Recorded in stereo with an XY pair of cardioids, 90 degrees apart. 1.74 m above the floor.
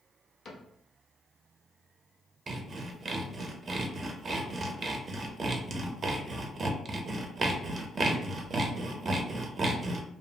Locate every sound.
0.5 s a cupboard door: 55° left, 0.7 m
2.5 s sawing: 45° right, 0.6 m